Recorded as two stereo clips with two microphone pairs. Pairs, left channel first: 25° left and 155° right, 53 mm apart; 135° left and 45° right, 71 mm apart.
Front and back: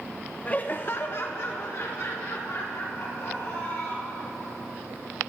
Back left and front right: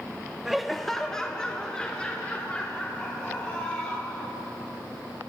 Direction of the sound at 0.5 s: 30° left.